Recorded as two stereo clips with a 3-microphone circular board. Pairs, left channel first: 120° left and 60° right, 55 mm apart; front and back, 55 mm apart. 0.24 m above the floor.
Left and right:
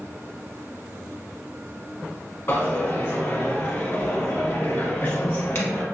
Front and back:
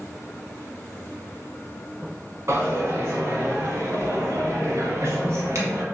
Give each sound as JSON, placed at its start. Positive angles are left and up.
{"t": 2.5, "sound": "a dropped coin", "azimuth_deg": 160, "distance_m": 0.8}